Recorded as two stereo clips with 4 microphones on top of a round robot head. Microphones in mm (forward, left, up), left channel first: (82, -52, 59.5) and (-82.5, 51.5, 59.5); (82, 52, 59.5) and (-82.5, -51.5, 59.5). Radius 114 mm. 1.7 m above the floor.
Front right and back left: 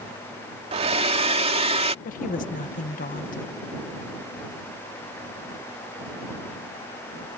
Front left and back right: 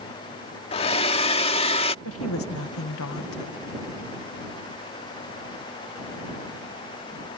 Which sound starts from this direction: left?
A hair dryer, at 0.7 s.